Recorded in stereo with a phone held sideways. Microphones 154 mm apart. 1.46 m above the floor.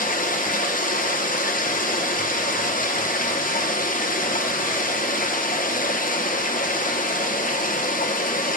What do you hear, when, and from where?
0.0 s running water: 60° left (ahead or behind), 0.9 m